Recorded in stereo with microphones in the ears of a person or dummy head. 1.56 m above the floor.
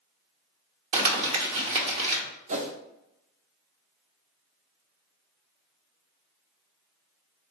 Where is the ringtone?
No ringtone in this recording.